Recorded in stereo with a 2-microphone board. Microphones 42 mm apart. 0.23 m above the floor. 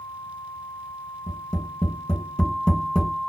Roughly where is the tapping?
Left.